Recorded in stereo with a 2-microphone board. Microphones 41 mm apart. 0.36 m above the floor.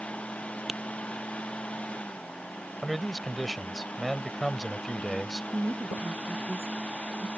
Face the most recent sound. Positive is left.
turn(degrees=-75)  # may be behind; listen again after turning